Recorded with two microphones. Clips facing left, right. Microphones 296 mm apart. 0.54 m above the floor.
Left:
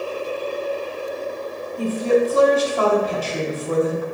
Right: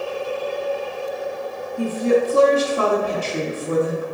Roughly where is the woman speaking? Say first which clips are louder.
Even; right.